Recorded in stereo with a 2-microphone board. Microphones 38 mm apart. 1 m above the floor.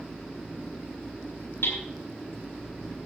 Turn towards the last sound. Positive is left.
turn(degrees=70)  # may be behind; listen again after turning